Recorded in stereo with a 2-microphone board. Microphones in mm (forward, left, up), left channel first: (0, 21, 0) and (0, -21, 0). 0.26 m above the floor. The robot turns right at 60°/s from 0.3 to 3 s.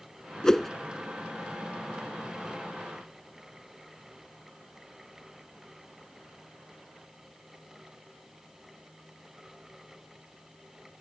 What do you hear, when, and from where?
0.4 s a whoosh: 15° left (ahead or behind); by 0.7 s centre (ahead or behind)